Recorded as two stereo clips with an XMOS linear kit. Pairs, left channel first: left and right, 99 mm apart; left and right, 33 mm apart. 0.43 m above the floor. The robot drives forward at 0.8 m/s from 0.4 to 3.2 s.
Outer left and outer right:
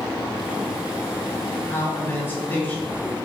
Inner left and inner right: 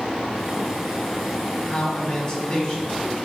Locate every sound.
1.7 s a man speaking: 25° left (ahead or behind), 2.5 m; by 3.2 s 20° left (ahead or behind), 3.5 m